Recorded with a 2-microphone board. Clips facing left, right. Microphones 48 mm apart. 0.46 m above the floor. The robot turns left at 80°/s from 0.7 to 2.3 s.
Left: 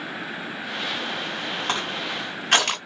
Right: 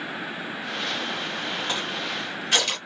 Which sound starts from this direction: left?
Crushing, at 1.7 s.